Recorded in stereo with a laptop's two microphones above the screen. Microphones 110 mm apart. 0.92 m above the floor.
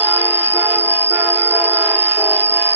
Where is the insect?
80° right.